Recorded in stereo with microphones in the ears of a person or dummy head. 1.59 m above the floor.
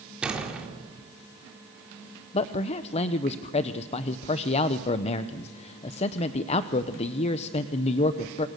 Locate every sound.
0.2 s a door slam: 5° right (ahead or behind), 4 m
2.3 s a man speaking: 35° left (ahead or behind), 0.8 m